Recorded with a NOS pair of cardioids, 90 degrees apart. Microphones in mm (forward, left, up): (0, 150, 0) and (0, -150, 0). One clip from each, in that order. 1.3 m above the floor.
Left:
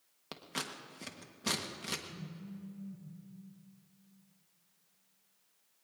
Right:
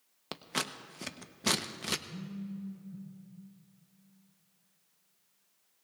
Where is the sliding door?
No sliding door in this recording.